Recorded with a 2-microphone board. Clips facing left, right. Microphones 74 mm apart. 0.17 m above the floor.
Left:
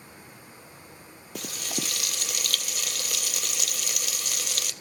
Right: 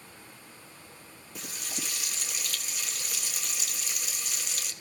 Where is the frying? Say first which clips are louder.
Left 6 dB; 75° left (ahead or behind), 0.9 m.